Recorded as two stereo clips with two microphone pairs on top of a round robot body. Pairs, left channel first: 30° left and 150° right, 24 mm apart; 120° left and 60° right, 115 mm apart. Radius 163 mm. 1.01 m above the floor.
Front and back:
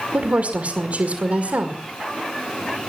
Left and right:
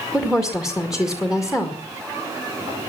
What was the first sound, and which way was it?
A woman speaking, 145° right.